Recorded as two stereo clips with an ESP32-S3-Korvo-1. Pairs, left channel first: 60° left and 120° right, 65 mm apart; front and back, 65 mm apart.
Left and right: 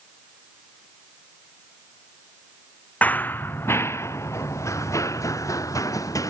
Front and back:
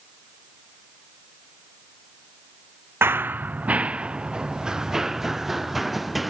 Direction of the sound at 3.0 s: 130° left.